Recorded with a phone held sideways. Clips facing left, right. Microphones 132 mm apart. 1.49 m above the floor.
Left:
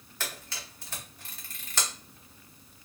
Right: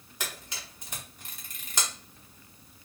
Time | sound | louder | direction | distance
0.2 | a camera shutter | even | 15° right (ahead or behind) | 1.2 m